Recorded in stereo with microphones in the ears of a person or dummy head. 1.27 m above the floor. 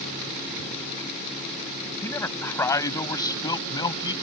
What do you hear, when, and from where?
2.0 s a man speaking: 15° left (ahead or behind); by 4.1 s 30° left (ahead or behind)